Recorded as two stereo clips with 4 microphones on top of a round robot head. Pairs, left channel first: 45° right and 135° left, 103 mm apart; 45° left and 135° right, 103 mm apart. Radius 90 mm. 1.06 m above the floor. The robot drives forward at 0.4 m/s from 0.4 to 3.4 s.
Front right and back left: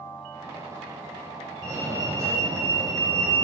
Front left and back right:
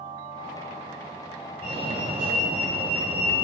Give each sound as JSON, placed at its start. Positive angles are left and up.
{"t": 1.6, "sound": "a fire alarm", "azimuth_deg": -165, "distance_m": 7.0}